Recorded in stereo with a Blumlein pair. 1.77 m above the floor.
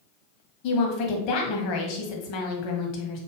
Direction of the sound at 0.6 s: 40° left.